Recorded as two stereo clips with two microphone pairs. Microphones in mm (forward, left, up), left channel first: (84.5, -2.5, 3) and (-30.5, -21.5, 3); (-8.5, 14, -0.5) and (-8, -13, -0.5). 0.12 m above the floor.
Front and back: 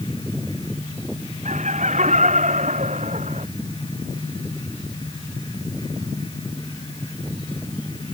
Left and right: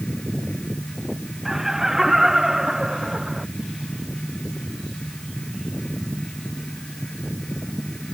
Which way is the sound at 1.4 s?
170° right.